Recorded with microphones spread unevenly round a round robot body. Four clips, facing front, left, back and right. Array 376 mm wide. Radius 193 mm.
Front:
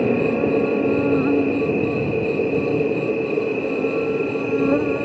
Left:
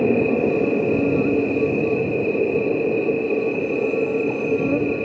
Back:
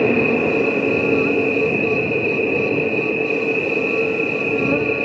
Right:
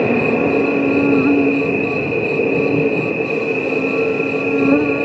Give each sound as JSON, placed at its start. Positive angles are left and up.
{"t": 0.0, "sound": "an insect", "azimuth_deg": -90}